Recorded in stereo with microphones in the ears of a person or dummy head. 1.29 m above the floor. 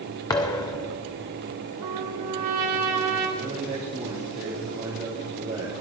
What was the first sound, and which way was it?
A thud, 15° left (ahead or behind).